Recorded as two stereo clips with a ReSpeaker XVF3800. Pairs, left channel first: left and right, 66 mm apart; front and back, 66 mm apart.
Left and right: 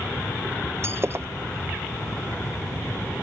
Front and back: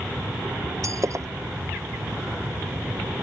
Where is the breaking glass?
140° right.